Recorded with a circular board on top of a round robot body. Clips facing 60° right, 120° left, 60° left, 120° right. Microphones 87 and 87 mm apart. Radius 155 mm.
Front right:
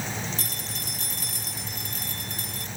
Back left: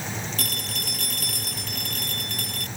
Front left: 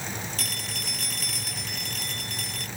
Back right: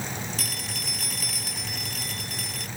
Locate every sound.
0.4 s a phone ringing: 150° left